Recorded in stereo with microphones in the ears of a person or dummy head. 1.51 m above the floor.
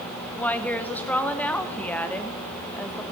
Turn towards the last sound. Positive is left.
turn(degrees=0)  # may be behind; listen again after turning